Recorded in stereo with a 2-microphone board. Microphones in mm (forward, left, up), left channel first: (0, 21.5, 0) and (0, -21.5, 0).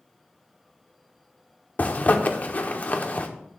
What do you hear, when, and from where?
1.8 s a zipper: 40° left (ahead or behind), 0.8 m